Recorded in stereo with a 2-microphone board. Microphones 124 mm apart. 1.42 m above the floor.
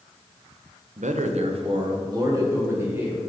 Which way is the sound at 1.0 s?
80° right.